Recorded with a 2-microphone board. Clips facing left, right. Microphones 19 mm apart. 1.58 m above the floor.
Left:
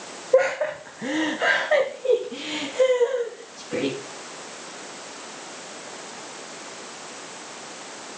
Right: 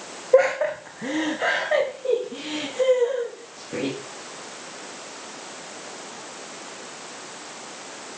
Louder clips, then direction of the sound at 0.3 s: Right 2 dB; 15° right (ahead or behind).